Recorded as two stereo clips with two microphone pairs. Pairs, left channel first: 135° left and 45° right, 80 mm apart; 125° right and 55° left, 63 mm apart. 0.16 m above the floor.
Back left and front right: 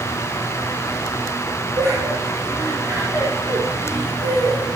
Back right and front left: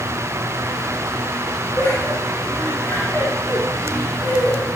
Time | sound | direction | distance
1.8 | laughter | 75° right | 6 m